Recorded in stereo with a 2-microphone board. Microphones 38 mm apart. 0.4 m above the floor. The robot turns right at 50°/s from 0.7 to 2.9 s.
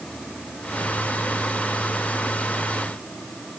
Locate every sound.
Only background noise.